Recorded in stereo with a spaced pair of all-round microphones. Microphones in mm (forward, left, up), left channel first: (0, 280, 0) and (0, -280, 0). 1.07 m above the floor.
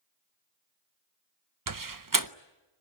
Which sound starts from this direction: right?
A door slam, at 1.7 s.